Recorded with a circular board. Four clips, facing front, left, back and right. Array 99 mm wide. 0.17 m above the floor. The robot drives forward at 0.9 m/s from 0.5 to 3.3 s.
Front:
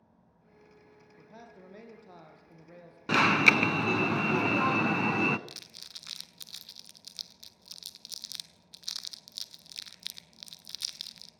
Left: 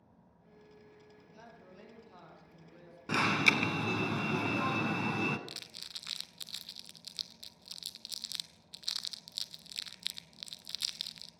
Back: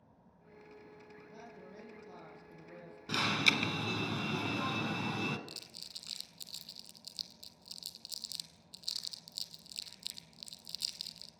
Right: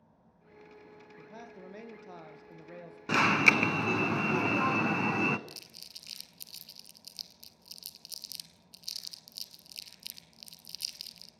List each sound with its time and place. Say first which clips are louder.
1.2 s a man speaking: right 9 dB, front 3 dB; 65° right, 4.5 m; by 3.0 s 85° right, 4 m
3.1 s an alarm: right 4 dB, front 10 dB; 20° right, 1.2 m; by 5.4 s 25° right, 1.1 m
5.5 s crumpling: left 1 dB, front 1 dB; 55° left, 0.8 m